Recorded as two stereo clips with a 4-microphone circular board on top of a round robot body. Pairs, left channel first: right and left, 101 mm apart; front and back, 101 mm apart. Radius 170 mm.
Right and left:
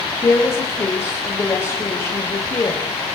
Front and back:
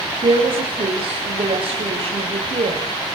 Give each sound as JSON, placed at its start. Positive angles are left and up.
{"t": 0.2, "sound": "a woman speaking", "azimuth_deg": -155, "distance_m": 3.5}